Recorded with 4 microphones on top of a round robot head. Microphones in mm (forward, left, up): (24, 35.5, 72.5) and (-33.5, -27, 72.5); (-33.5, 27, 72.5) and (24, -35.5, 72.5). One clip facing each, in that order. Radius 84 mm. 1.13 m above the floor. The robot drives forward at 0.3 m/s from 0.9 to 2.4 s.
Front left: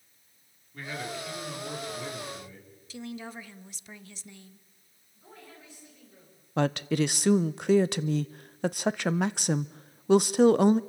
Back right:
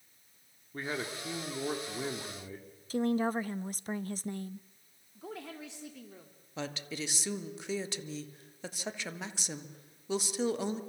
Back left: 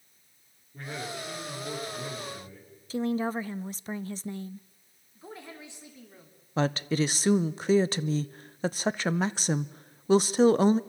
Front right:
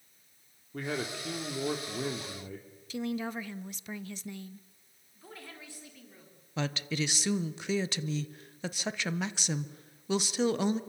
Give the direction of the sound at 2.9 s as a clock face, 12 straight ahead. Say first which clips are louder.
Back right 10 dB, back left 6 dB; 6 o'clock.